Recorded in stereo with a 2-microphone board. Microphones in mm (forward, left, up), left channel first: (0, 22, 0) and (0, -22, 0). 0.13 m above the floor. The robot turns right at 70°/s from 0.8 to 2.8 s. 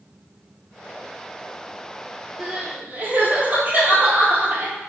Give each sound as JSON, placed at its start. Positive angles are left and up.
{"t": 2.4, "sound": "crying", "side_deg": -15, "distance_m": 1.1}